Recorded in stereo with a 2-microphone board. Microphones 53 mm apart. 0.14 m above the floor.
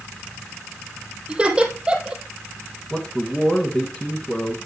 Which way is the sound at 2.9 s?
20° left (ahead or behind).